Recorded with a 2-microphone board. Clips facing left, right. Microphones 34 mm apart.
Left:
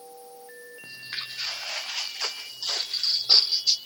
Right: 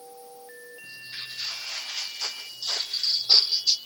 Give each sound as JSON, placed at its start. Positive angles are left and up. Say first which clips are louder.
{"t": 0.8, "sound": "footsteps", "louder": "left 3 dB", "side_deg": 75, "distance_m": 3.5}